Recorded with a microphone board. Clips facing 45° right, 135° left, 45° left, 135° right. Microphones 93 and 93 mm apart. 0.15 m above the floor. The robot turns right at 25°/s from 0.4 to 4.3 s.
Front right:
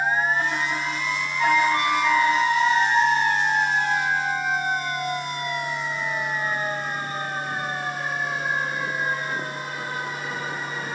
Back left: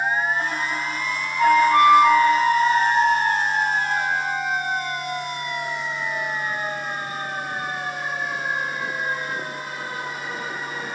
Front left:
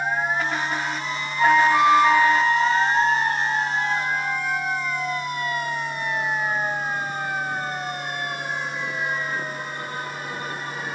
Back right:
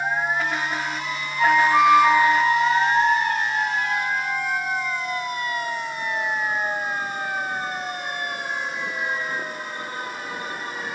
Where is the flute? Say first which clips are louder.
Back left 6 dB, even; 125° left, 0.9 m; by 3.6 s straight behind, 0.9 m.